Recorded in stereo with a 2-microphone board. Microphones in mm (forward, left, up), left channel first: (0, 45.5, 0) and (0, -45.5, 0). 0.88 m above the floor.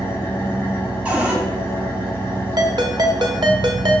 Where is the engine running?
25° left (ahead or behind), 3.5 m.